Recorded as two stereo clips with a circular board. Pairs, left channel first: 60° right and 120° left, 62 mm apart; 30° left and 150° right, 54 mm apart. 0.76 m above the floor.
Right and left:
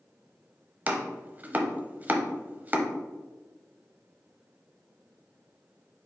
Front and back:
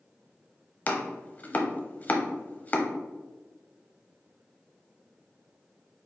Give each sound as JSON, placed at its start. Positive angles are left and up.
{"t": 0.9, "sound": "chopping", "azimuth_deg": 70, "distance_m": 0.7}